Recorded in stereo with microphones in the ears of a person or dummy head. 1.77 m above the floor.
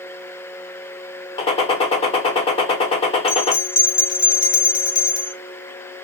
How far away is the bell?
About 1.0 m.